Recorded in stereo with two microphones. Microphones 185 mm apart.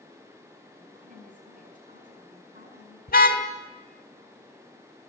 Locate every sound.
0.8 s a woman speaking: 45° right (ahead or behind), 8.5 m
3.1 s a car horn: 55° left (ahead or behind), 2.5 m